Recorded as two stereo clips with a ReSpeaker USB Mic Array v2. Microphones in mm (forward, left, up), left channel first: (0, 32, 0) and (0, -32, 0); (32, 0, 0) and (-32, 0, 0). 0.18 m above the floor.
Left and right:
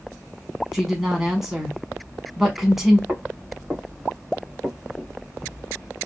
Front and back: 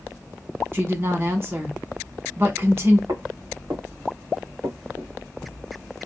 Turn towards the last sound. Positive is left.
turn(degrees=175)